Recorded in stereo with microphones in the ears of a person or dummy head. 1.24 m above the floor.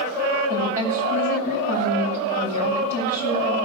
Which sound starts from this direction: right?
A woman speaking, at 0.5 s.